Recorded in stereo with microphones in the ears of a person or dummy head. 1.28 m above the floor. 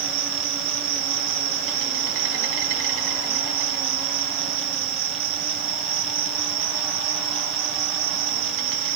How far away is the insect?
About 1.9 m.